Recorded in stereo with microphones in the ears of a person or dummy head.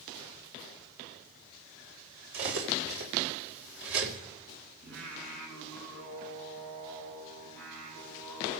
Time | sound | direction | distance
2.3 | cutlery clinking | 75° right (ahead or behind) | 4 m
4.8 | singing | 65° right (ahead or behind) | 8 m